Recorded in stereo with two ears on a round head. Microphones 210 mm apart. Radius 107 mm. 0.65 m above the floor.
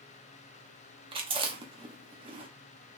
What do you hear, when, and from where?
1.1 s chewing: 25° right (ahead or behind), 0.8 m